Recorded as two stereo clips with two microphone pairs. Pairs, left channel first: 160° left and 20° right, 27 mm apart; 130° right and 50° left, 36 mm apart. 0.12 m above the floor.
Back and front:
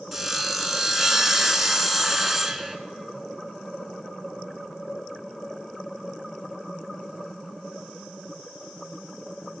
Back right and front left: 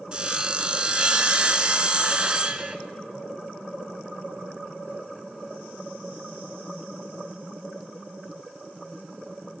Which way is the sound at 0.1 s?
50° left.